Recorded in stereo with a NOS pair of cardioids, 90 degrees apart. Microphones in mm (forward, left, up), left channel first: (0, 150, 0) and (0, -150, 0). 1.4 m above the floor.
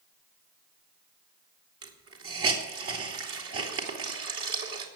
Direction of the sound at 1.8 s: 50° right.